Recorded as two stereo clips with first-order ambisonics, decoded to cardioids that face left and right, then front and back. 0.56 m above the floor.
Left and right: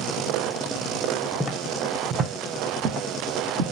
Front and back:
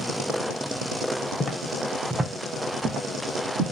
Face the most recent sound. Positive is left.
turn(degrees=-125)